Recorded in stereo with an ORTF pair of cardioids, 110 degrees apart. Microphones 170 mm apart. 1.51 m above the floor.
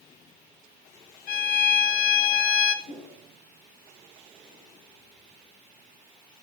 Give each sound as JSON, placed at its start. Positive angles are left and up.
{"t": 1.3, "sound": "a violin", "azimuth_deg": 60, "distance_m": 1.4}
{"t": 2.9, "sound": "a whoosh", "azimuth_deg": 60, "distance_m": 6.0}